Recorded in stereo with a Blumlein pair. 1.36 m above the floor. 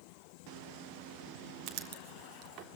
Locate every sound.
1.7 s writing: 35° right, 3 m